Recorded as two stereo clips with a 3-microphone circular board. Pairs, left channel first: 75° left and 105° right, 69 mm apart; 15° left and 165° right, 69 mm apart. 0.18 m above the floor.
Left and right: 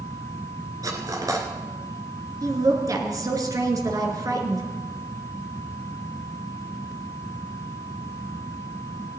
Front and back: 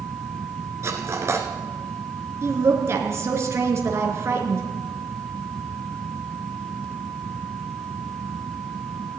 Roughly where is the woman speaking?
Behind right.